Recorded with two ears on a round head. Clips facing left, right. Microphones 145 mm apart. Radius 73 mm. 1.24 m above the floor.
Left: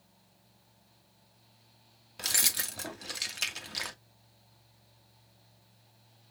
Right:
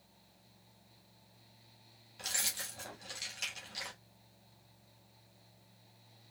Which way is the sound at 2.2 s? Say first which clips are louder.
Left 5 dB; 60° left (ahead or behind).